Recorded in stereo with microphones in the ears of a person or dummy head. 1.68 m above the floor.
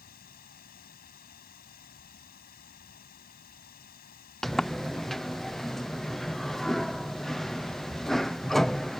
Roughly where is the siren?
I don't hear a siren.